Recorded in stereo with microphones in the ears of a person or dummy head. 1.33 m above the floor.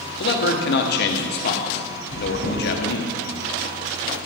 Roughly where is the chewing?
Right.